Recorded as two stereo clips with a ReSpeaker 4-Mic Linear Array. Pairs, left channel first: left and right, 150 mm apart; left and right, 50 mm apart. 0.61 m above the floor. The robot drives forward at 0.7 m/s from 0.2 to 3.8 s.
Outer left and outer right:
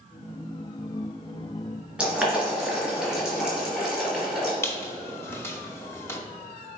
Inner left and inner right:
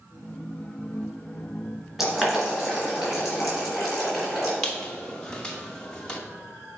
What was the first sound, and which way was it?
Boiling, 5° right (ahead or behind).